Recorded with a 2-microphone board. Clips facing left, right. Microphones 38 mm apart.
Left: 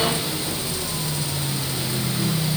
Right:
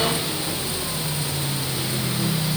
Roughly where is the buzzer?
No buzzer in this recording.